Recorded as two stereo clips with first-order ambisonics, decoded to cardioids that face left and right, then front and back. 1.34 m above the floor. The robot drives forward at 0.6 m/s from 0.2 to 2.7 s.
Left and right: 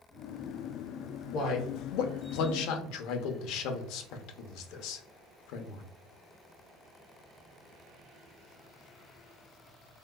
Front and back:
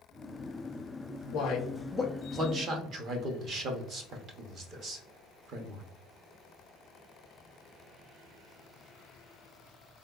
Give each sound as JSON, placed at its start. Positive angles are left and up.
{"t": 1.3, "sound": "a man speaking", "azimuth_deg": 45, "distance_m": 0.7}